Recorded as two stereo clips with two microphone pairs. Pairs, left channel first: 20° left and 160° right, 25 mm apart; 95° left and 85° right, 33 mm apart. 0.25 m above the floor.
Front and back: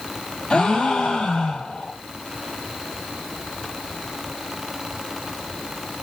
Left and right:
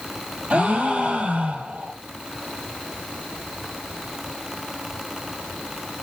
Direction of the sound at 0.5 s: 40° right.